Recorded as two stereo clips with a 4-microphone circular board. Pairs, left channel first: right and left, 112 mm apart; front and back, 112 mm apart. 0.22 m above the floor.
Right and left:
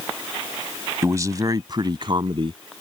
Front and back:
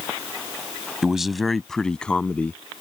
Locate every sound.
1.0 s a man speaking: 100° left; by 2.6 s 75° left